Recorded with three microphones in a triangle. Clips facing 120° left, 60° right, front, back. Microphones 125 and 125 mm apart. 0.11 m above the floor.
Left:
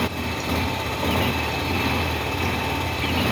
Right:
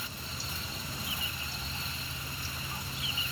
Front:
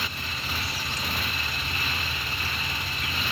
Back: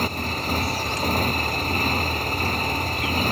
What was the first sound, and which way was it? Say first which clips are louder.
A motorcycle: left 18 dB, back 9 dB; 135° left.